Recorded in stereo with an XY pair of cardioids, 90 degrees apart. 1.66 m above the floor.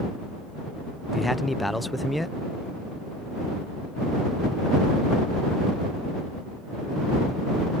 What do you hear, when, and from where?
1.1 s a man speaking: 10° left